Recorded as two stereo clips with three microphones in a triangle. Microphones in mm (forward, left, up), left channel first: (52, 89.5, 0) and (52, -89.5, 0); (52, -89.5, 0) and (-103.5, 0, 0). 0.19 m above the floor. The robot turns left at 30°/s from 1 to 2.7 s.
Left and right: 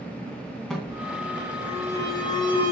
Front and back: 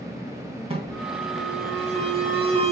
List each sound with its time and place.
0.7 s an alarm: 175° left, 2 m; by 2.7 s 125° left, 2 m